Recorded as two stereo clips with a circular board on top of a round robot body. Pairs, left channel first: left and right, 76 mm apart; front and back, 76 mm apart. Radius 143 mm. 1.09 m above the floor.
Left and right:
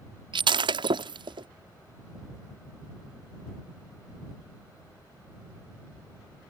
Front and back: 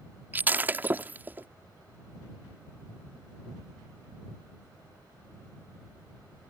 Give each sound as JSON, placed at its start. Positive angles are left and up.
{"t": 0.3, "sound": "breaking glass", "azimuth_deg": -110}